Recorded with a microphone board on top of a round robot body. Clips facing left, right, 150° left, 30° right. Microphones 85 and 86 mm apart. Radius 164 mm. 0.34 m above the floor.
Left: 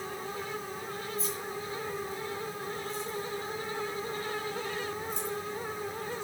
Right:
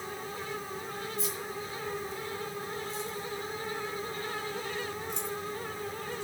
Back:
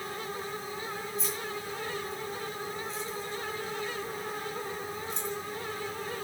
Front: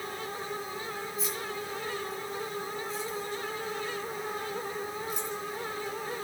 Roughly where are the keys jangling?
Behind right.